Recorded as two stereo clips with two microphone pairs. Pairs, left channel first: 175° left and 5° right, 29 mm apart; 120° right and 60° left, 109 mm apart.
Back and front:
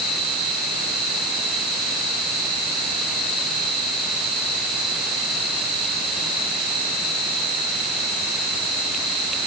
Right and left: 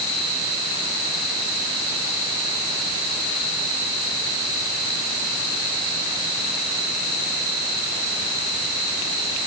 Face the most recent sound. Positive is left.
No sound to turn to.